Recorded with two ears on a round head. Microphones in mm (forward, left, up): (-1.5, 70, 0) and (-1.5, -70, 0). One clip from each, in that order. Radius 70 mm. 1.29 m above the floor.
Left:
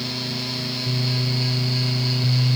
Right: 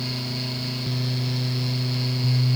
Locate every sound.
Only background noise.